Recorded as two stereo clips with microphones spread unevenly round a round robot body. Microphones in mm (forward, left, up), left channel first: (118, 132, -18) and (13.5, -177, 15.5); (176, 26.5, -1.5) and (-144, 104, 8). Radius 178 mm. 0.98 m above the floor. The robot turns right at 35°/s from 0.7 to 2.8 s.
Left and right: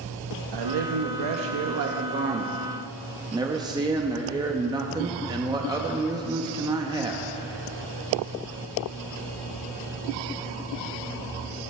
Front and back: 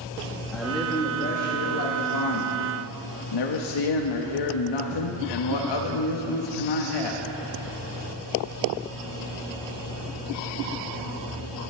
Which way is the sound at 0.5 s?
105° right.